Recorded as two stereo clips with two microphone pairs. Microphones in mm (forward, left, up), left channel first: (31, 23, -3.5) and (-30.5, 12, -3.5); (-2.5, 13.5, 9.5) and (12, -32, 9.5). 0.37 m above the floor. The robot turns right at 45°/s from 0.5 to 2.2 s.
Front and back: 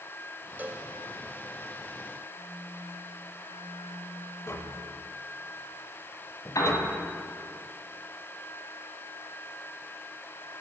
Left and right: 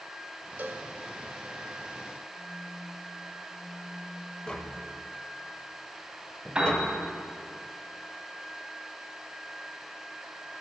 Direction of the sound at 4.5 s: 40° left.